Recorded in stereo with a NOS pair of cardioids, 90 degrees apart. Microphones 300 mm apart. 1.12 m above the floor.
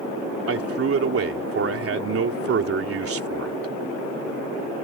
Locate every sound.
0.5 s a man speaking: 45° right